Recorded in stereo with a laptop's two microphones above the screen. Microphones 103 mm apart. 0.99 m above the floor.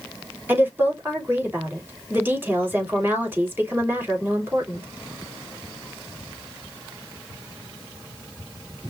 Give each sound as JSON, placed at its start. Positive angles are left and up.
{"t": 0.5, "sound": "a woman speaking", "side_deg": -20, "distance_m": 3.0}